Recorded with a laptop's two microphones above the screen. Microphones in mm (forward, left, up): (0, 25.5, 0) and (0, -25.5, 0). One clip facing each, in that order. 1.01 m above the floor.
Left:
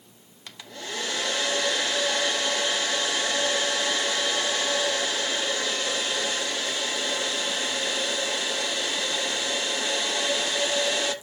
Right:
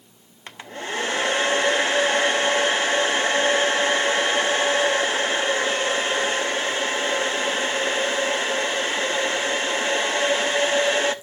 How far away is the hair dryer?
About 0.7 m.